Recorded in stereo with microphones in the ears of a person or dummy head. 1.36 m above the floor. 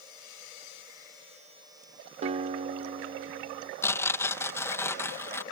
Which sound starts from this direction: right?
A guitar, at 2.2 s.